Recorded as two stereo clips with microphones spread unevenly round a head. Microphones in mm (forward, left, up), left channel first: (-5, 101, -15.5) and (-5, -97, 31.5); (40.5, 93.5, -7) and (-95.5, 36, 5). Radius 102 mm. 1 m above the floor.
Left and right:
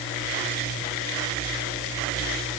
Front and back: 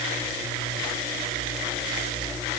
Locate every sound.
Only background noise.